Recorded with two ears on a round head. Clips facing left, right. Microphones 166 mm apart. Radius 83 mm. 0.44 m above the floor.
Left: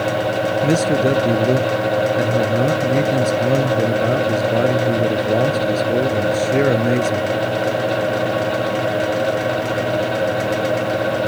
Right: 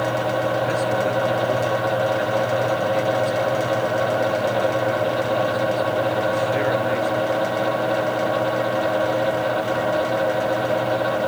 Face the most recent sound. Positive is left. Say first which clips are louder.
# left 5 dB
turn(degrees=50)  # may be behind; listen again after turning